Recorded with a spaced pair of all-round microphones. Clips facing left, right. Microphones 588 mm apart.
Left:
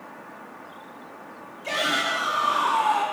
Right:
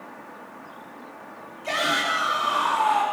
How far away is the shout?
About 3.5 m.